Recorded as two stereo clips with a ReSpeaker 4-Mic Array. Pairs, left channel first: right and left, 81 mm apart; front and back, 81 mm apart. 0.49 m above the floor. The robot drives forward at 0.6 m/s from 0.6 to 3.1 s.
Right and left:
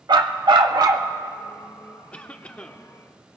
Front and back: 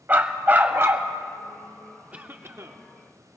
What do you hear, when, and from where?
0.1 s a dog barking: 115° left, 0.8 m; by 1.1 s 130° left, 0.9 m
2.1 s a cough: 135° right, 0.8 m; by 2.9 s 160° right, 1.0 m